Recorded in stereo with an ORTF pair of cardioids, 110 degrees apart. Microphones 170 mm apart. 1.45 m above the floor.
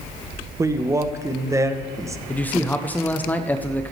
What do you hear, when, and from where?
0.6 s a man speaking: 15° right, 0.9 m
2.3 s a man speaking: 10° left, 0.7 m